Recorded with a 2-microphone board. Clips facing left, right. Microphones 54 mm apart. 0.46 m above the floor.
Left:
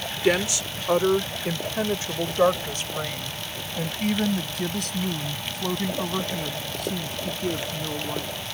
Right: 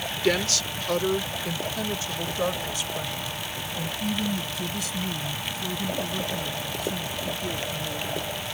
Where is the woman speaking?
10° left (ahead or behind); by 8.3 s 65° left (ahead or behind).